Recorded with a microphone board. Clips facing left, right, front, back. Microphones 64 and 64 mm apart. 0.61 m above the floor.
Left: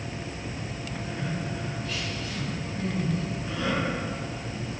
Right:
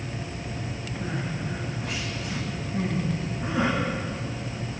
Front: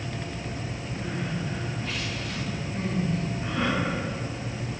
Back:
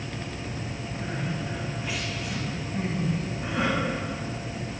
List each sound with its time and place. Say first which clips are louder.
1.0 s crying: right 2 dB, even; 100° right, 7 m